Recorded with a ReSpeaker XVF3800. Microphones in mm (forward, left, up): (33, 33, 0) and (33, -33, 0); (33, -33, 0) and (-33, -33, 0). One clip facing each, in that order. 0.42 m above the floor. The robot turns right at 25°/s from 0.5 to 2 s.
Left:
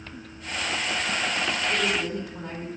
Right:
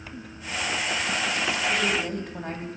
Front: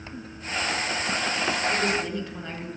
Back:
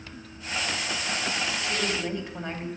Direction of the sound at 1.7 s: 125° right.